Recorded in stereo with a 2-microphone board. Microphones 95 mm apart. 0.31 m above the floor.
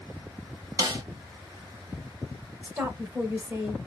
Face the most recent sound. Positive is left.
turn(degrees=-25)  # may be behind; listen again after turning